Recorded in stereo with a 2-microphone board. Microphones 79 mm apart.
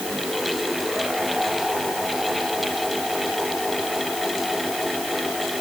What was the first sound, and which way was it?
Only background noise.